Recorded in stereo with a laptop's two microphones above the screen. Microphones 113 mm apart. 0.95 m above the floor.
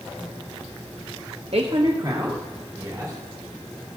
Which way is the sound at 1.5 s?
60° right (ahead or behind).